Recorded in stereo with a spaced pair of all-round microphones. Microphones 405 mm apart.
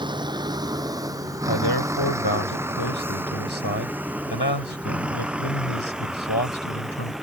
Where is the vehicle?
10° right (ahead or behind); by 7.2 s centre (ahead or behind).